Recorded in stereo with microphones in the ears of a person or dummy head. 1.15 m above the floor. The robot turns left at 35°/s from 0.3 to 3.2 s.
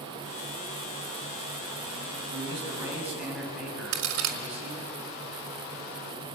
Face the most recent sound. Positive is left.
turn(degrees=-85)